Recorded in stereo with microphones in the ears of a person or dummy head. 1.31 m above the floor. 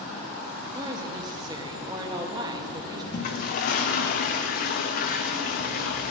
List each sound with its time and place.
0.7 s a woman speaking: 20° right (ahead or behind), 1.9 m
3.1 s a toilet flushing: 40° left (ahead or behind), 0.7 m